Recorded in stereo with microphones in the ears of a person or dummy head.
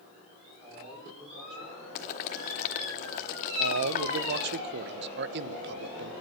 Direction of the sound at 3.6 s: 60° right (ahead or behind).